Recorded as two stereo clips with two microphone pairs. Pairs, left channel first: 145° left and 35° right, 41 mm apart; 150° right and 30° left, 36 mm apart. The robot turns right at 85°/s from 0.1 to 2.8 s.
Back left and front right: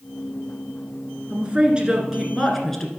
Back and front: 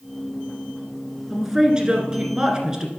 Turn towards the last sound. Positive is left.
turn(degrees=80)